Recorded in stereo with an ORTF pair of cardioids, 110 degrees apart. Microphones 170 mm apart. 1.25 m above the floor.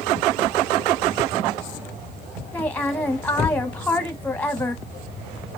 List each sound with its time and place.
2.5 s a woman speaking: 10° left, 0.9 m